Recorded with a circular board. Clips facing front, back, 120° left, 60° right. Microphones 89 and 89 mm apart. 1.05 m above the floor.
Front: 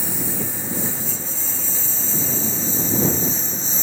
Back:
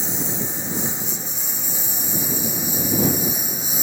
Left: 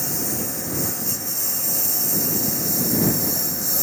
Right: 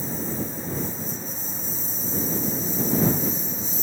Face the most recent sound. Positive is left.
turn(degrees=105)